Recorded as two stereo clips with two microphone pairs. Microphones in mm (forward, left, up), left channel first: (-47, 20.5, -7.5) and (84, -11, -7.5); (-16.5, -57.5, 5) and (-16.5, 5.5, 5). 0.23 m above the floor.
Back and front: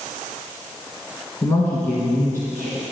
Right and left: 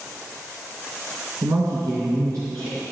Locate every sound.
1.4 s a woman speaking: 95° left, 2 m